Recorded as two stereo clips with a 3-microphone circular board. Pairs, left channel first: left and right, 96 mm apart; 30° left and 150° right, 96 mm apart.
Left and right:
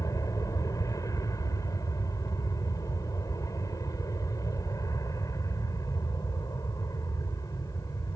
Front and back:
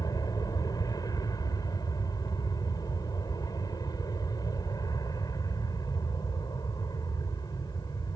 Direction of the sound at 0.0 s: 55° left.